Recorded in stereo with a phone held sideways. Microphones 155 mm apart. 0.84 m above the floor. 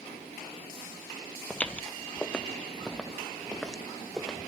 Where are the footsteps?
10° left (ahead or behind), 0.9 m; by 4.5 s centre (ahead or behind), 1.9 m.